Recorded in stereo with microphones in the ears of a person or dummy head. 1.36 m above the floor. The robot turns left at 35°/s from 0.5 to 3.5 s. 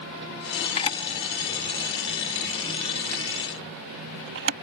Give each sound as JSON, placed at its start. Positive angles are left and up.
{"t": 0.8, "sound": "a camera shutter", "side_deg": 30}